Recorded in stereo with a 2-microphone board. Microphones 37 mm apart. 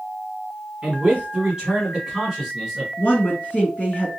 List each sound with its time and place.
0.8 s a man speaking: 30° right (ahead or behind), 1.3 m; by 2.9 s centre (ahead or behind), 1.5 m
3.0 s a woman speaking: 35° left (ahead or behind), 1.9 m